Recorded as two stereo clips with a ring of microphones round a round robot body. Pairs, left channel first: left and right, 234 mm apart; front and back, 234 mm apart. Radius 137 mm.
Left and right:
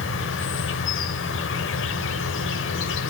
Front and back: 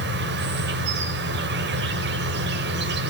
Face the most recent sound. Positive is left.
turn(degrees=130)